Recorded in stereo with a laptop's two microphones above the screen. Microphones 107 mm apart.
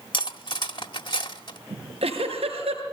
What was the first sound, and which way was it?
Cutlery clinking, 50° left (ahead or behind).